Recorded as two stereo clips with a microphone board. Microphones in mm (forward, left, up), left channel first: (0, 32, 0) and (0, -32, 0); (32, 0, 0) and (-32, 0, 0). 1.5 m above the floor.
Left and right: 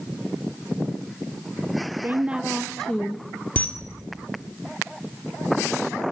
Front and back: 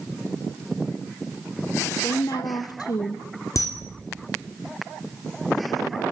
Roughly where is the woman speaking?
Ahead right.